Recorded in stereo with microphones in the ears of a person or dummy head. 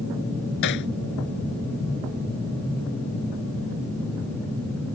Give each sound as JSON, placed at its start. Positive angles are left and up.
{"t": 0.6, "sound": "hammering", "side_deg": 60}